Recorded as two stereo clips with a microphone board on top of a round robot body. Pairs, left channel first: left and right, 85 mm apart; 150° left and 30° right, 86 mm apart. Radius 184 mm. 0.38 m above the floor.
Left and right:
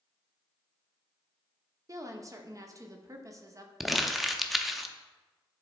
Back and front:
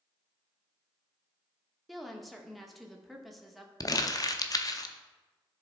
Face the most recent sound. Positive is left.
turn(degrees=180)